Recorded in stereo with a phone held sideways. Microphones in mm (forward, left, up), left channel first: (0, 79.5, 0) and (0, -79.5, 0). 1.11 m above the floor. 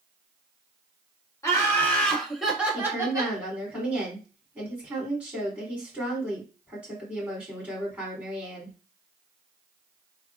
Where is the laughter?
20° left (ahead or behind), 1.4 m; by 3.4 s 25° right (ahead or behind), 1.2 m.